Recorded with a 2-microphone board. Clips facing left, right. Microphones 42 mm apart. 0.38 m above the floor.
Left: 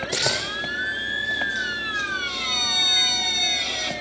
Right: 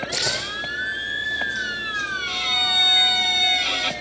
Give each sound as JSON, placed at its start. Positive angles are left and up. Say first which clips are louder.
{"t": 0.1, "sound": "a camera shutter", "louder": "left 4 dB", "side_deg": 50, "distance_m": 7.5}
{"t": 2.3, "sound": "a violin", "louder": "right 3 dB", "side_deg": -40, "distance_m": 1.4}